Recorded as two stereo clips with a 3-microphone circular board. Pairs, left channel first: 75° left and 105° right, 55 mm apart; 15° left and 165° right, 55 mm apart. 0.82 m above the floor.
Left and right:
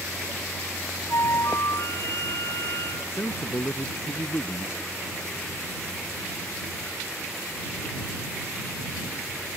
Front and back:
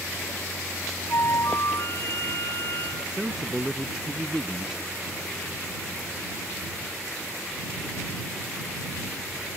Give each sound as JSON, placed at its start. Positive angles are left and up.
{"t": 1.1, "sound": "a flute", "azimuth_deg": 45}
{"t": 3.1, "sound": "a man speaking", "azimuth_deg": 115}